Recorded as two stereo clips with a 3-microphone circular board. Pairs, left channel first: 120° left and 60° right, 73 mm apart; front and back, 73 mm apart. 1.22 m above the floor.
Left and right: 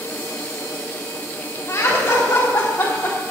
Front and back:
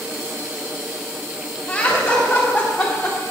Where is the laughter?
80° left, 3 m; by 3.2 s 90° left, 1.9 m.